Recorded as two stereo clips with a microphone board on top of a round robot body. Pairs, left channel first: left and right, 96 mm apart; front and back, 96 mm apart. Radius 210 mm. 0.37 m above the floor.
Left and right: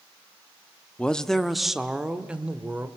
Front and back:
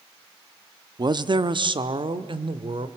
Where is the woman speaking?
165° left, 1.3 m; by 2.9 s 165° right, 2 m.